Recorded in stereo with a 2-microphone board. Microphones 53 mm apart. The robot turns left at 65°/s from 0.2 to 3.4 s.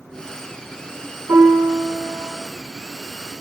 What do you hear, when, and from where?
1.3 s a piano: 85° right, 7 m; by 2.4 s 155° right, 7 m